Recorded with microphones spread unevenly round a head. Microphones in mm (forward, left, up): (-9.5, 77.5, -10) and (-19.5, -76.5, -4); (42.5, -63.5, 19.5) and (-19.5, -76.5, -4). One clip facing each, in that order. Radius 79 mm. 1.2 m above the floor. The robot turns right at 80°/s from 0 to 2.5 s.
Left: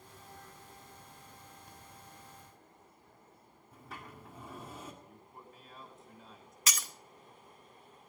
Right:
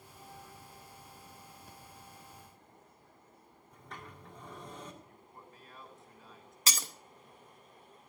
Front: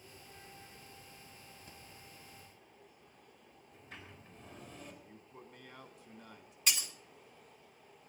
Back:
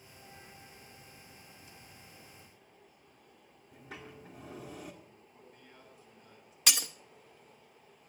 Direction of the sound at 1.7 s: 5° right.